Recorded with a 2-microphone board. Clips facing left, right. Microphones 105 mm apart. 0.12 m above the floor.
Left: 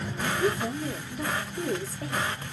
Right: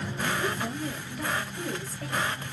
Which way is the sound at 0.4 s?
10° left (ahead or behind).